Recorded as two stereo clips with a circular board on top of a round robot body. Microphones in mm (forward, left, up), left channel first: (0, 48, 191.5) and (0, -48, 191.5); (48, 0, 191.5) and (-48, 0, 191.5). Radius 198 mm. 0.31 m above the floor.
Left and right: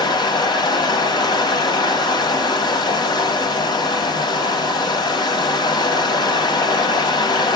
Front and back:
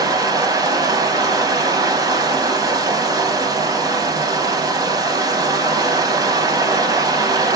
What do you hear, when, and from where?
0.0 s running water: 130° left, 2 m